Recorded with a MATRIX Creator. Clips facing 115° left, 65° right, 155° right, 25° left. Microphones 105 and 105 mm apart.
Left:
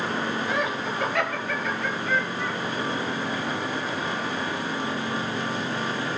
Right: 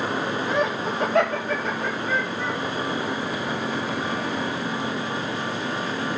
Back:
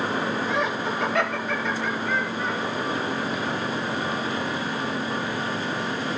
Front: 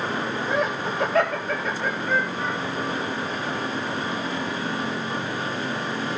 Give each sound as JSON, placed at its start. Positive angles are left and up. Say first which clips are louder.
{"t": 0.5, "sound": "laughter", "louder": "right 3 dB, front 1 dB", "azimuth_deg": -15, "distance_m": 2.5}